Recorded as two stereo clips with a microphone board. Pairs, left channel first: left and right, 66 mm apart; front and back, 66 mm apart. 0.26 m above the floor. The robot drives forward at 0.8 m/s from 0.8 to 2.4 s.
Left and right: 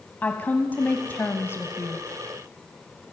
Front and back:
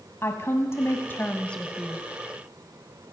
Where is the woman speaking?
35° left, 1.4 m; by 2.0 s 100° left, 1.1 m.